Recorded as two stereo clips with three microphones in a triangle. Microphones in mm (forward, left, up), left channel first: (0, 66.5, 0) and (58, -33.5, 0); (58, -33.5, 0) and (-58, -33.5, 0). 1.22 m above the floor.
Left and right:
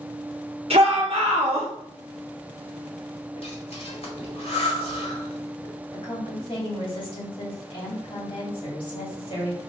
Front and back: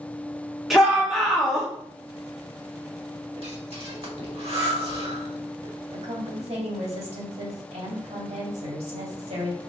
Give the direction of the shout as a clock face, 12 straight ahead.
3 o'clock.